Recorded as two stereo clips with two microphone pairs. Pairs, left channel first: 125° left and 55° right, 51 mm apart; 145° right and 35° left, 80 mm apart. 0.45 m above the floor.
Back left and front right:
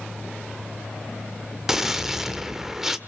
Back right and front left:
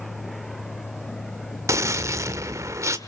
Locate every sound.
1.7 s a gunshot: 25° left, 1.4 m